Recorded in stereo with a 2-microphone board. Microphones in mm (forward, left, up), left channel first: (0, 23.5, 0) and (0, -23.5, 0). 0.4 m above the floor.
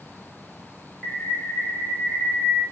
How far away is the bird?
About 1.6 m.